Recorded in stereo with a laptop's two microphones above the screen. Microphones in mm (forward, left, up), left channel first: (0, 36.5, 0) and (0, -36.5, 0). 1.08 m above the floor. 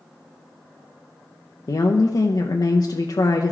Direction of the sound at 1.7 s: 60° left (ahead or behind).